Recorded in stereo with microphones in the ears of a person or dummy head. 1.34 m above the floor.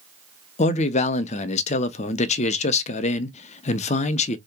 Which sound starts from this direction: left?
A man speaking, at 0.6 s.